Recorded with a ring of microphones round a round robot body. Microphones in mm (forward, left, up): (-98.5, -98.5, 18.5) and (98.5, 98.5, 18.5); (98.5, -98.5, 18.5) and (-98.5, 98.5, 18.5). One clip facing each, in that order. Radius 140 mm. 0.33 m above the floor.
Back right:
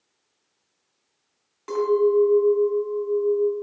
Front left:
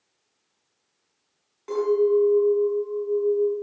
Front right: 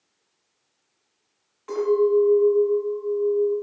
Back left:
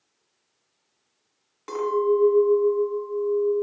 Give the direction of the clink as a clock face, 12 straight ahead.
7 o'clock.